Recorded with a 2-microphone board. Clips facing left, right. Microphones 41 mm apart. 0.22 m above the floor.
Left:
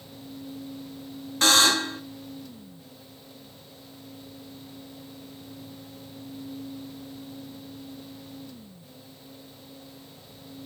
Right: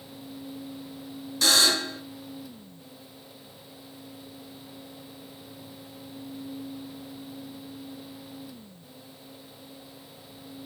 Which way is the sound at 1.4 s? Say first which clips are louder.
Left 3 dB; 45° left (ahead or behind).